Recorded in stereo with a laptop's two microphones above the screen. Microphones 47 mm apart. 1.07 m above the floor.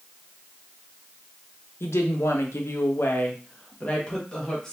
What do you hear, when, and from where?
1.8 s a woman speaking: 80° left, 0.9 m; by 4.7 s 10° left (ahead or behind), 1.2 m